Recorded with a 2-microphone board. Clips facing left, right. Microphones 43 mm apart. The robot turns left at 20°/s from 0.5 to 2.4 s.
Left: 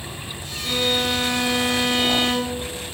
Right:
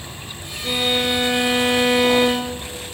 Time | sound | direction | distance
0.6 | a violin | 25° right | 2.5 m